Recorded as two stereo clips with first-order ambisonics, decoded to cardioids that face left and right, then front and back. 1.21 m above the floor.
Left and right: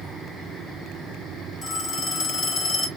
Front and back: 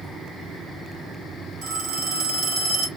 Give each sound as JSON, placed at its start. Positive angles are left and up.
{"t": 1.6, "sound": "a phone ringing", "azimuth_deg": 145, "distance_m": 1.3}